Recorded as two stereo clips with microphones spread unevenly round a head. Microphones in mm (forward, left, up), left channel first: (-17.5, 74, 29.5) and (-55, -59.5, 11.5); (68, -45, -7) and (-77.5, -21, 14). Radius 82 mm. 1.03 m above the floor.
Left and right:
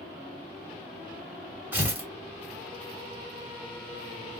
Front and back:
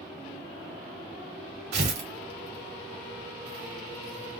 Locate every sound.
1.7 s tearing paper: straight behind, 1.9 m